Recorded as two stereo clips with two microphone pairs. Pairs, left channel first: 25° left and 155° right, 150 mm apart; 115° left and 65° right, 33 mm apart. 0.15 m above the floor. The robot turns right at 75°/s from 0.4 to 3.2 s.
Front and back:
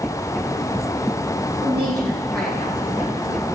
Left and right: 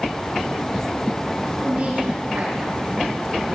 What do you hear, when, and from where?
1.6 s a woman speaking: 115° right, 6.5 m; by 3.4 s 5° left, 6.5 m